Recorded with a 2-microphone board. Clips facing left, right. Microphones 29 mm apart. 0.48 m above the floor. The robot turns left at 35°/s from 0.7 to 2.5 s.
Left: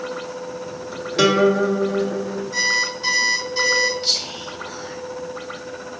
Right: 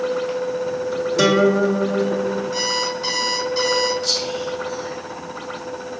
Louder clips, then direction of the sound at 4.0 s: Right 1 dB; 30° left (ahead or behind).